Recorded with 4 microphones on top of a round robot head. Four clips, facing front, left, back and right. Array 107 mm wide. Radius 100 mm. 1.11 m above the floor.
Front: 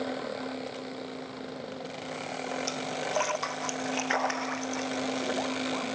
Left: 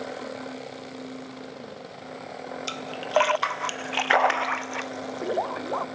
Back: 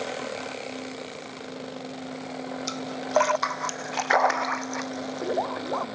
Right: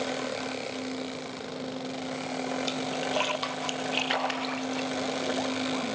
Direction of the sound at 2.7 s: 135° left.